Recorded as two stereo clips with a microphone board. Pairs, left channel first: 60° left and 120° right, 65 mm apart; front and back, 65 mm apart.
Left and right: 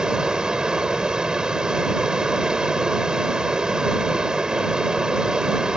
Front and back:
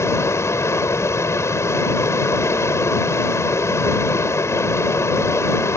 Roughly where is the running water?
Ahead right.